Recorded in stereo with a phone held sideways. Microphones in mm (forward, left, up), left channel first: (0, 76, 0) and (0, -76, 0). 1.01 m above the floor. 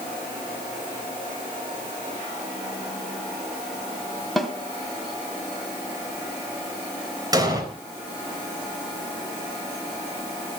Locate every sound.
4.4 s a snare drum: centre (ahead or behind), 2.5 m
7.3 s an explosion: 25° right (ahead or behind), 4 m